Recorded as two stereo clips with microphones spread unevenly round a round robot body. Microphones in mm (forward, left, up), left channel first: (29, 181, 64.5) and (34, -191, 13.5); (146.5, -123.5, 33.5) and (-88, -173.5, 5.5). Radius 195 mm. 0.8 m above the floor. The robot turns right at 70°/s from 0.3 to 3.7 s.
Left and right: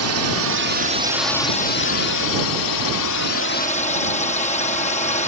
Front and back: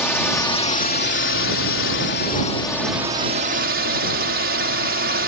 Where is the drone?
75° right; by 5.3 s 165° left.